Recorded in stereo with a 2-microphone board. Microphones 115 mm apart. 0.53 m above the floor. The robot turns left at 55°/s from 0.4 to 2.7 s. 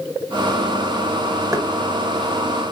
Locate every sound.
1.5 s knocking: 30° right (ahead or behind), 0.6 m; by 1.7 s 25° right (ahead or behind), 0.6 m